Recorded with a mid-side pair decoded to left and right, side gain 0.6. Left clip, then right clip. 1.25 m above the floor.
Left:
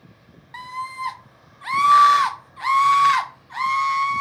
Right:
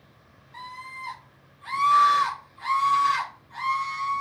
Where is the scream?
55° left, 0.6 m.